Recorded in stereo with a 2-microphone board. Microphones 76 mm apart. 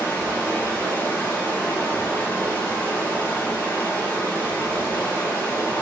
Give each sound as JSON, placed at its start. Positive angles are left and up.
{"t": 0.0, "sound": "running water", "side_deg": 20, "distance_m": 0.8}